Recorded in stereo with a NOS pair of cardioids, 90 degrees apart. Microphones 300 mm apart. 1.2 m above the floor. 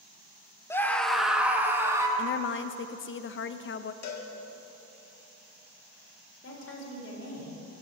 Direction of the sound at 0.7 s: 10° left.